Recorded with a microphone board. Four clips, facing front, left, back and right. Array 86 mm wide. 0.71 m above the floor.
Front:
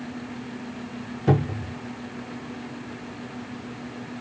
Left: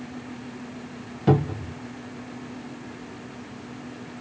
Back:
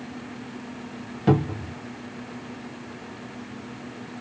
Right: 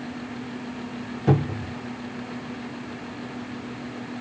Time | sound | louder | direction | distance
1.3 | a cupboard door | left 1 dB, back 2 dB | 160° left | 1.3 m